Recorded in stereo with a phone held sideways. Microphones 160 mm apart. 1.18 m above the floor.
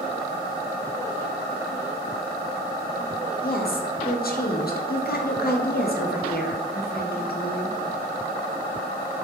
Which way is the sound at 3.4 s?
65° left (ahead or behind).